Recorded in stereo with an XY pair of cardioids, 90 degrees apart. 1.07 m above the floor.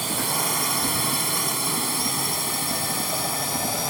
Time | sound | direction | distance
0.0 | a drone | 15° right | ?